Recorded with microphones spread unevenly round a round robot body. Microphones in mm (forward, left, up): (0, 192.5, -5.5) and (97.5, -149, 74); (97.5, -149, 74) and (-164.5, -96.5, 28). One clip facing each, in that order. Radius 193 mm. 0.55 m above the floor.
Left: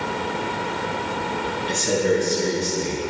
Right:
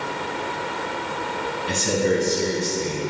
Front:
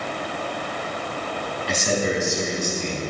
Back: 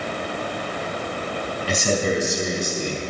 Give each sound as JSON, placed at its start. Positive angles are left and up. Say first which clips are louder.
{"t": 1.7, "sound": "a man speaking", "louder": "left 1 dB, back 1 dB", "azimuth_deg": -140, "distance_m": 4.0}